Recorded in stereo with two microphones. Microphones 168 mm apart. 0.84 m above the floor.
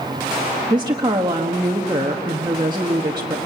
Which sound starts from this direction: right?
A woman speaking, at 0.7 s.